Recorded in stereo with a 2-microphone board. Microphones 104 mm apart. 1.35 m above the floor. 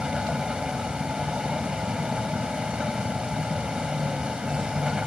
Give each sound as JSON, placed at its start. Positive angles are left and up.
{"t": 0.0, "sound": "a vehicle", "side_deg": -10}